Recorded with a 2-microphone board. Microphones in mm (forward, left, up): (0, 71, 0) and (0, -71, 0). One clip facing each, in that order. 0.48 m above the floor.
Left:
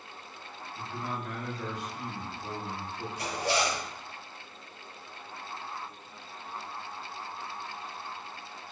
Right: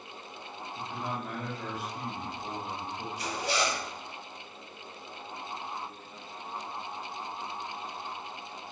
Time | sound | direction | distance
0.8 | a man speaking | 10° right (ahead or behind) | 1.7 m
3.2 | a zipper | 65° left (ahead or behind) | 1.1 m